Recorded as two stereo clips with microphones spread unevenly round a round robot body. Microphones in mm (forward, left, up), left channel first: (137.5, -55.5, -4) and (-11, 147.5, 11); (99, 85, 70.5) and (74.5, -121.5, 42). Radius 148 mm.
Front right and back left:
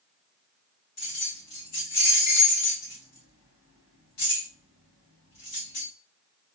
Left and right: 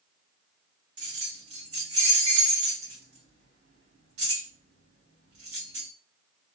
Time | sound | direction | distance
1.0 | keys jangling | 100° right | 2.5 m